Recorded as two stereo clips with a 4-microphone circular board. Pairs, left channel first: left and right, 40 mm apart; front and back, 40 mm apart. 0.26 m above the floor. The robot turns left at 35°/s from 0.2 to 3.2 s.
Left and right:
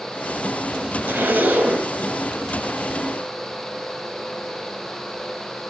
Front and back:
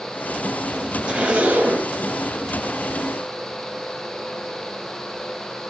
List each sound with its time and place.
1.1 s a zipper: 110° right, 2.5 m; by 1.9 s 140° right, 2.5 m